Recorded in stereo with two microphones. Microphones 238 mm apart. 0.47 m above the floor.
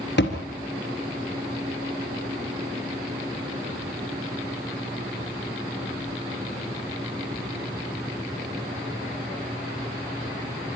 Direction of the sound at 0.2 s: 45° left (ahead or behind).